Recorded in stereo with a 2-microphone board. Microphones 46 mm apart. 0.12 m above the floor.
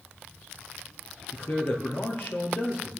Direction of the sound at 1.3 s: 50° left (ahead or behind).